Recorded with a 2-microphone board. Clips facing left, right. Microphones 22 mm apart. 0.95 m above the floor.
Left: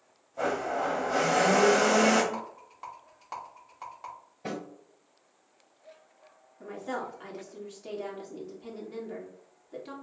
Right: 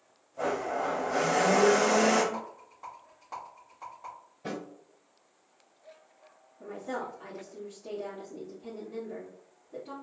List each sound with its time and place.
0.4 s a blender: 70° left (ahead or behind), 0.9 m
2.3 s a rattle: 65° left (ahead or behind), 1.4 m
4.5 s a snare drum: 50° left (ahead or behind), 2.0 m
6.6 s a woman speaking: 65° left (ahead or behind), 1.4 m